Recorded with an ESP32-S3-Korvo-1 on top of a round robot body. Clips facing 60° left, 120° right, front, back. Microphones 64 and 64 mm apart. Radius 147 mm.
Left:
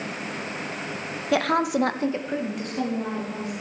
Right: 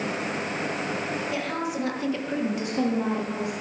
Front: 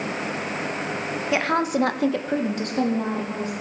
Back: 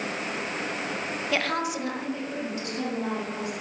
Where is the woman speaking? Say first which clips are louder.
Left 7 dB, front 6 dB; 75° left, 1.1 m; by 3.5 s 50° right, 2.5 m.